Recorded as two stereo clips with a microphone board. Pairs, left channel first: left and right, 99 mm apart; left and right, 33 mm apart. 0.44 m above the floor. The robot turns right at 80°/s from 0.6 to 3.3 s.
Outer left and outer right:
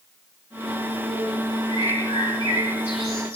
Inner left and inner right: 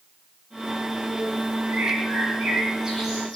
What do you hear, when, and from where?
1.7 s a bird: 115° right, 4.5 m; by 3.4 s 15° left, 4.5 m